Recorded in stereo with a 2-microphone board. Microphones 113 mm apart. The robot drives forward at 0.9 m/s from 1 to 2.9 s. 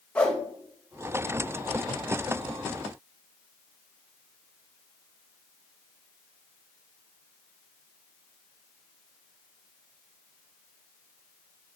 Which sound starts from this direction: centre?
A whoosh, at 0.1 s.